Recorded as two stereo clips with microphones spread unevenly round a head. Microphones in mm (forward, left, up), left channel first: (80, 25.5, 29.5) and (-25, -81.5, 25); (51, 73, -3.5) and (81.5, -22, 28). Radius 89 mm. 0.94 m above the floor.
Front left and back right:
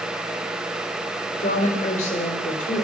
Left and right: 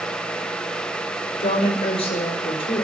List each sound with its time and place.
1.4 s a woman speaking: 95° left, 4 m